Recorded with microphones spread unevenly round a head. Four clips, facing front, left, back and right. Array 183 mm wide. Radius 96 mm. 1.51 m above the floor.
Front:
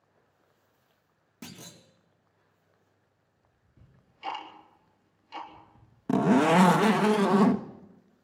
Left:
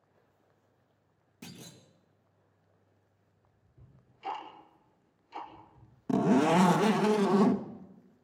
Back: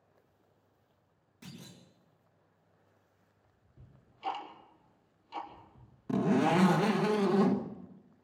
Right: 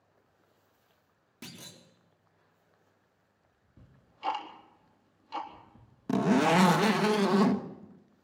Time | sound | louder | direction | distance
1.4 | a clunk | even, front 4 dB | 20° right | 4.5 m
3.8 | ticking | right 6 dB, front 1 dB | 80° right | 4 m
6.1 | a zipper | even, front 6 dB | straight ahead | 1.1 m